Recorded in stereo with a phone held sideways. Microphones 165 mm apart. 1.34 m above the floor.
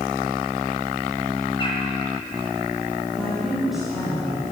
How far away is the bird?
About 1.9 m.